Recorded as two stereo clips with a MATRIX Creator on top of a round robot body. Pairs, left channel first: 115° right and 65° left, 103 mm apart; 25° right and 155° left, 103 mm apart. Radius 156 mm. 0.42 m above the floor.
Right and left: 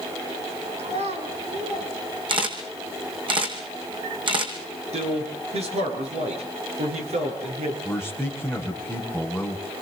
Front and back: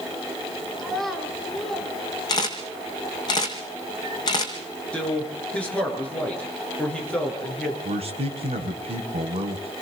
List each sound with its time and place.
0.8 s a child speaking: 65° left, 5 m
2.3 s a camera shutter: 30° left, 5 m
4.9 s a man speaking: 55° left, 9.5 m
7.8 s a man speaking: 150° left, 3.5 m